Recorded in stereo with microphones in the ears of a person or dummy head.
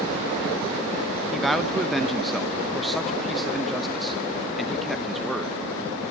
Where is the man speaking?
5° right (ahead or behind), 0.8 m.